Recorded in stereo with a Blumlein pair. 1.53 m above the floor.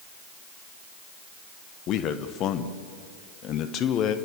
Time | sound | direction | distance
1.9 | a man speaking | 35° left | 1.2 m